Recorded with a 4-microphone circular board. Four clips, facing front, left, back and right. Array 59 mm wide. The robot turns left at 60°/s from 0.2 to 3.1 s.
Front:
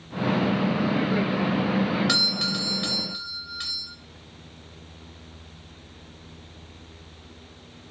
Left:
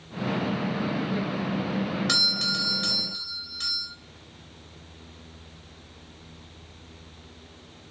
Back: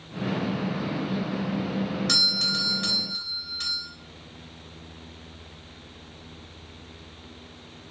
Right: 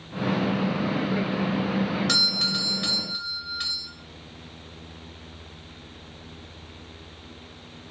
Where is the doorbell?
5° left, 2.5 m; by 3.9 s 55° right, 2.5 m.